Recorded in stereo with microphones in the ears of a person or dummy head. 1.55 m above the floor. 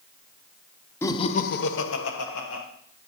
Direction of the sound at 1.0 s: 20° left (ahead or behind).